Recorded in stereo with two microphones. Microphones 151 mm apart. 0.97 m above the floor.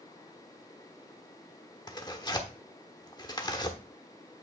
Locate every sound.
1.9 s tearing paper: 30° left (ahead or behind), 1.1 m